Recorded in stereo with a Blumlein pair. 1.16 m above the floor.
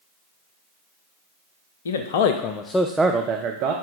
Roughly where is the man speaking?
Ahead left.